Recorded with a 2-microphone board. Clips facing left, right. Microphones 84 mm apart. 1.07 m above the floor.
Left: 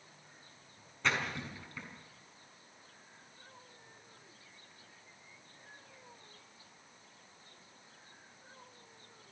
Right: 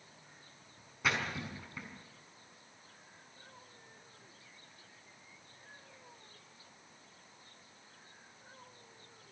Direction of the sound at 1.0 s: 10° right (ahead or behind).